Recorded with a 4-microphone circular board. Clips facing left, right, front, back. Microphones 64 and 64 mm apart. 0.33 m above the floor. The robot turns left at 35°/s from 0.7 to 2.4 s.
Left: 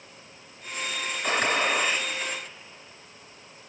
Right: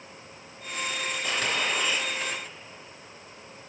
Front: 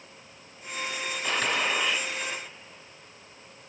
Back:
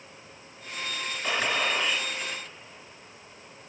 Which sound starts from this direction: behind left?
A gunshot, at 1.2 s.